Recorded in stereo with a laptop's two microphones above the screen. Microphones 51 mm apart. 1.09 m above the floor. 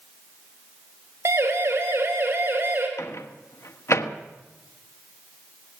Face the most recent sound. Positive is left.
turn(degrees=65)  # may be behind; listen again after turning